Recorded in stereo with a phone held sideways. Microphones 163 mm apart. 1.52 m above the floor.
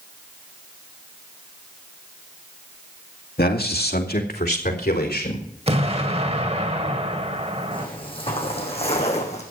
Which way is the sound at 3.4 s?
80° left.